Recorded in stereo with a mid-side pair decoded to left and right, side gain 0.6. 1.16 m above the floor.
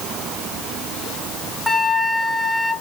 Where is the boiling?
I don't hear boiling.